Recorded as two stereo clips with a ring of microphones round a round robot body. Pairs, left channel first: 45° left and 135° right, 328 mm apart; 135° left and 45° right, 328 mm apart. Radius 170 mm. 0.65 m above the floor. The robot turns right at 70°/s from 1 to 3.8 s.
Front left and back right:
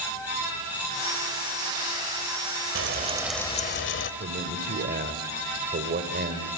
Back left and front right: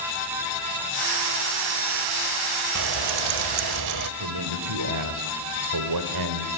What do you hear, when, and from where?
2.8 s frying: 85° right, 1.0 m; by 4.1 s 10° right, 1.0 m
4.2 s a man speaking: 70° right, 2 m